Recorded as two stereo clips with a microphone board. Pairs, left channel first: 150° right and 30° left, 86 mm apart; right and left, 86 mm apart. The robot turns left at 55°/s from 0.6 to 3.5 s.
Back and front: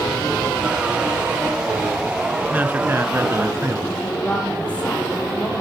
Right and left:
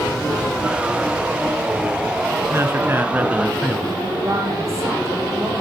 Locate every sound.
2.5 s a man speaking: 80° left, 1.2 m; by 3.9 s 25° left, 1.2 m
4.0 s a woman speaking: 135° left, 4 m